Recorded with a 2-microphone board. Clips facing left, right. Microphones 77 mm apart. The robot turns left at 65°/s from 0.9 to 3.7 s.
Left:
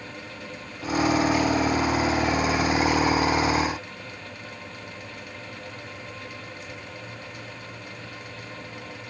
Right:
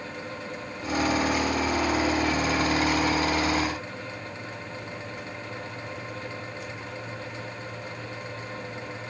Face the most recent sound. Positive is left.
No sound to turn to.